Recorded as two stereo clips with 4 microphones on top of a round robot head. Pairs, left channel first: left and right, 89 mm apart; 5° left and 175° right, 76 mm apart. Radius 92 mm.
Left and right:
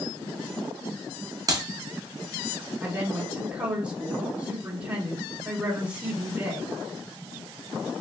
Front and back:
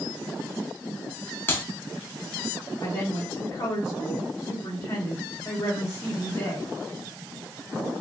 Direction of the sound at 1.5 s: 50° right.